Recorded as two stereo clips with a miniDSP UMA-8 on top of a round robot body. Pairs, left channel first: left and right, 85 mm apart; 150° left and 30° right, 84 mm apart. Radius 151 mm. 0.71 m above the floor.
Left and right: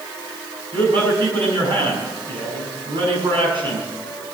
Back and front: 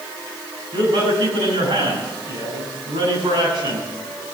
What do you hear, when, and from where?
0.7 s a man speaking: 60° right, 6.5 m